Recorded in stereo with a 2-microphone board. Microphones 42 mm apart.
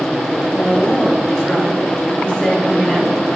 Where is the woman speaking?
15° left (ahead or behind), 7 m; by 3.1 s 25° left (ahead or behind), 4.5 m.